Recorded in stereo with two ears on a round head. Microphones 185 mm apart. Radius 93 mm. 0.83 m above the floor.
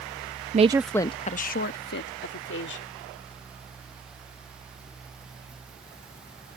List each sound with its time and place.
0.5 s a woman speaking: 35° right (ahead or behind); by 2.9 s 60° left (ahead or behind)